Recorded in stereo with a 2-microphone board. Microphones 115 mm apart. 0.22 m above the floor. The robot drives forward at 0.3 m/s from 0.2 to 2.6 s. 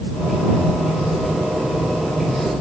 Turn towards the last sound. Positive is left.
No sound to turn to.